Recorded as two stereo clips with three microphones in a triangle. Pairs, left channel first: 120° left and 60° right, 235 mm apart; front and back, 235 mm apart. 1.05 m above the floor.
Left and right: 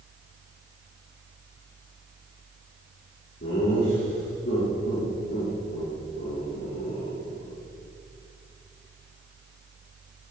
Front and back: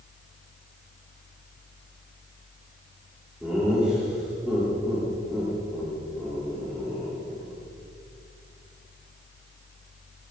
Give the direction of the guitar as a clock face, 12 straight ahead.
No guitar in this recording.